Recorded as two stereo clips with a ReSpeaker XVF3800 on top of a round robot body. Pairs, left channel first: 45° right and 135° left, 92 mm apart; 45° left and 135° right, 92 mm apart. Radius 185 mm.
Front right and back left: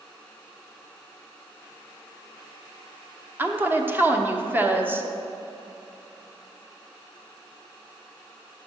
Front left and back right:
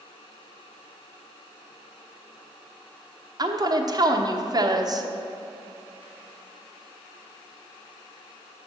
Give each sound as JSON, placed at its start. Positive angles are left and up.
{"t": 3.4, "sound": "a woman speaking", "azimuth_deg": -165, "distance_m": 1.2}